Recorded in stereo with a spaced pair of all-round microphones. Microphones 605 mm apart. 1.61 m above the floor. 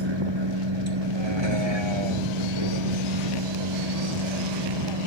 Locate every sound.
0.0 s a vehicle: 45° right (ahead or behind); by 5.1 s 50° right (ahead or behind)